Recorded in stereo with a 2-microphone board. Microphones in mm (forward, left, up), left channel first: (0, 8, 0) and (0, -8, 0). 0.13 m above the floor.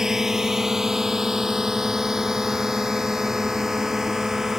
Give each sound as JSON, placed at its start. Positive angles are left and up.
{"t": 0.0, "sound": "a drone", "side_deg": -30}